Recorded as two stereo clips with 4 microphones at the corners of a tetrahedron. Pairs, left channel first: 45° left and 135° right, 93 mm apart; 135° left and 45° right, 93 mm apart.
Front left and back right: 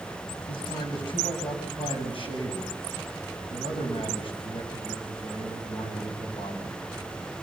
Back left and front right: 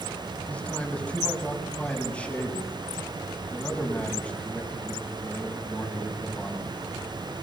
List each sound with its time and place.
0.5 s a man speaking: 60° left, 6.5 m